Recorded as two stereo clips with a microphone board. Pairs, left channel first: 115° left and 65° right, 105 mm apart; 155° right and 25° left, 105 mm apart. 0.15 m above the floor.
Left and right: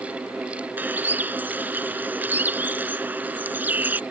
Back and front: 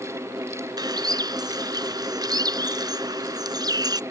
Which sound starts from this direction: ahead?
A bird, at 0.8 s.